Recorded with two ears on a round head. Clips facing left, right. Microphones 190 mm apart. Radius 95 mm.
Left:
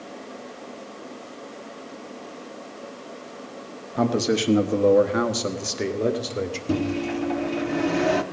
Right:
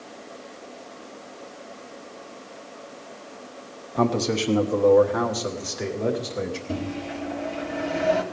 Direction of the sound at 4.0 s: 5° left (ahead or behind).